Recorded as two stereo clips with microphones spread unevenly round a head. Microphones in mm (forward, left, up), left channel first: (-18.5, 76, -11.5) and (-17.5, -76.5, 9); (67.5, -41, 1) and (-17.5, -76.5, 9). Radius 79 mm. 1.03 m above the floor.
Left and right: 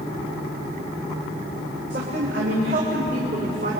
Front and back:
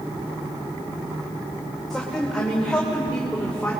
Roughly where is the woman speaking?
Ahead right.